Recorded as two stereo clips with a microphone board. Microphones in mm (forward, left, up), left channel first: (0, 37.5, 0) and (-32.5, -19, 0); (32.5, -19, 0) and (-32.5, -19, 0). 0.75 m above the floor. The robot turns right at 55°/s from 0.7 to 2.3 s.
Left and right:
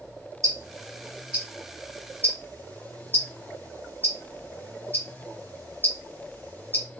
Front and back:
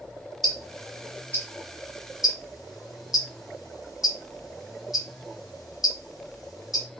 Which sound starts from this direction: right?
Ticking, at 0.4 s.